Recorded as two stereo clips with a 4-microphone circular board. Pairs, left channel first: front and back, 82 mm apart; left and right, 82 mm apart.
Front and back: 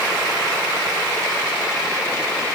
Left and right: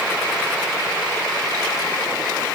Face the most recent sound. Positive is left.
No sound to turn to.